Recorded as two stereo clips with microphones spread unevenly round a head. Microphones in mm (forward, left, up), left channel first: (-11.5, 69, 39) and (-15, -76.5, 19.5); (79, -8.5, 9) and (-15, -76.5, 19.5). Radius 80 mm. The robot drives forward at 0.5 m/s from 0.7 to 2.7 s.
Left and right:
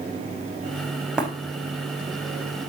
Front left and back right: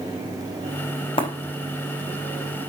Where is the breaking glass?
5° right, 5.5 m.